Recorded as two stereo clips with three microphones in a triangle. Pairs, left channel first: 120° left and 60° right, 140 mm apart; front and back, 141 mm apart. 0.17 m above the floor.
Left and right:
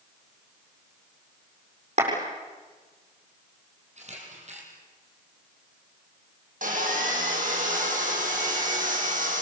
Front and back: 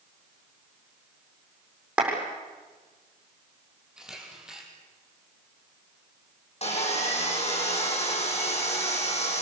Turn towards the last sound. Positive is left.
turn(degrees=-40)